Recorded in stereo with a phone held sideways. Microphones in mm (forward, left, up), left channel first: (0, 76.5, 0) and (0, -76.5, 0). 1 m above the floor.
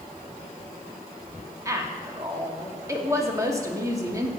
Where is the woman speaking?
20° right (ahead or behind), 1.9 m.